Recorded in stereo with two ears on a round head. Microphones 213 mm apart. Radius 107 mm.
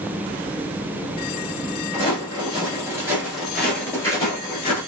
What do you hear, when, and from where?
1.9 s footsteps: 25° right (ahead or behind), 1.7 m; by 4.8 s 25° left (ahead or behind), 1.5 m